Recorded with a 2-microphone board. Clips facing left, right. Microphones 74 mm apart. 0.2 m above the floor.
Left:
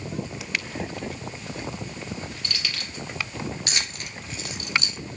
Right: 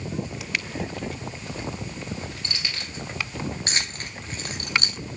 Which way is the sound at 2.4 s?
25° right (ahead or behind).